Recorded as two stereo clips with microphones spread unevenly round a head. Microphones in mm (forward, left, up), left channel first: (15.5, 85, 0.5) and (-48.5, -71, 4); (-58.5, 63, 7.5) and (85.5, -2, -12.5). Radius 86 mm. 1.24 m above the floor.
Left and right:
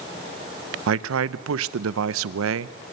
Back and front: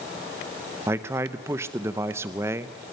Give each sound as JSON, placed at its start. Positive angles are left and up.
{"t": 0.9, "sound": "a man speaking", "azimuth_deg": -100, "distance_m": 0.7}